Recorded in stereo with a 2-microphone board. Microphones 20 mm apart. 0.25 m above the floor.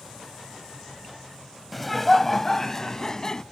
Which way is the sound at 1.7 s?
Centre (ahead or behind).